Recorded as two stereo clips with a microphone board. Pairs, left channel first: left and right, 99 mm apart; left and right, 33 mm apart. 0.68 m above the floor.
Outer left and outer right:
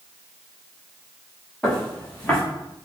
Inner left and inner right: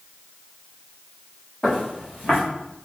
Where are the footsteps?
5° left (ahead or behind), 2.5 m.